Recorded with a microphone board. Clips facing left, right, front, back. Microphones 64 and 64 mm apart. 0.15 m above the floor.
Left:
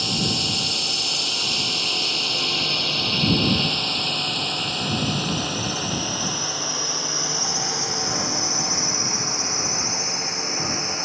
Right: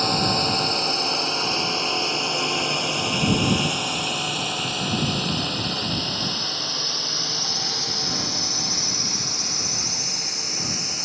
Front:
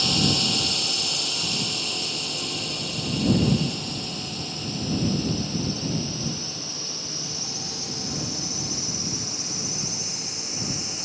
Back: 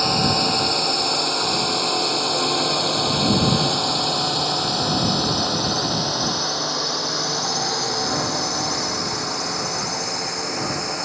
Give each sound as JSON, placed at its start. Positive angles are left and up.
{"t": 0.0, "sound": "a drone", "azimuth_deg": -135}